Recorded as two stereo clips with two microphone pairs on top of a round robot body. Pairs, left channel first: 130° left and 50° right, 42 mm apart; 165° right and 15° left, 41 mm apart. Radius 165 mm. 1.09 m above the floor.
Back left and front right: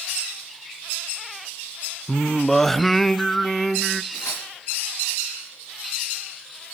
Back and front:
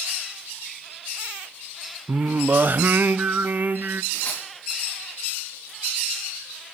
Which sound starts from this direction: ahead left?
Singing, at 2.1 s.